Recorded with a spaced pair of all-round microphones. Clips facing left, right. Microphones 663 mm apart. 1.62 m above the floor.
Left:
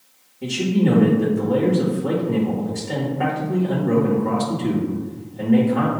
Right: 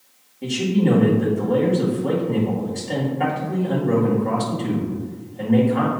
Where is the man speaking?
40° left (ahead or behind), 2 m.